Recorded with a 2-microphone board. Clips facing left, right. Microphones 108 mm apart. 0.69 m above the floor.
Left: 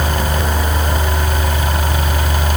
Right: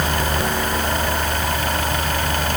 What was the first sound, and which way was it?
Only background noise.